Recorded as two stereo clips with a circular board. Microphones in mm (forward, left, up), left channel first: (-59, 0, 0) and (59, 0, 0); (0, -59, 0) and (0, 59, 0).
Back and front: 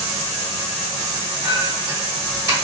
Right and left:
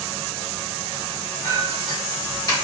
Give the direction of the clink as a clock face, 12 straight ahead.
2 o'clock.